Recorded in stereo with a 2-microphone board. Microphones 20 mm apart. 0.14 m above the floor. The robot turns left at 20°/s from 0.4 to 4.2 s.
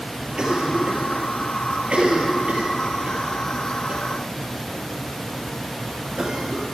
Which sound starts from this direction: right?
A cough, at 0.4 s.